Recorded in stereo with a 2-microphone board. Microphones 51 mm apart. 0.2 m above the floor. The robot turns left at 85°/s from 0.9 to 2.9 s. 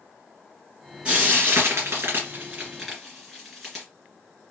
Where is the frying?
20° right (ahead or behind), 2 m; by 3.9 s centre (ahead or behind), 2 m.